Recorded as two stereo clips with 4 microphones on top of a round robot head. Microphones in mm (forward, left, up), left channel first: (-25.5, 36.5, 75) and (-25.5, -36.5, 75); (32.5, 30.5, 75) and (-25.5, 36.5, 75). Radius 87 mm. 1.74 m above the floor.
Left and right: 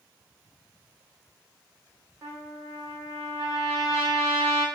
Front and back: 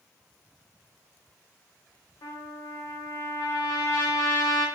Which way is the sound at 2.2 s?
35° right.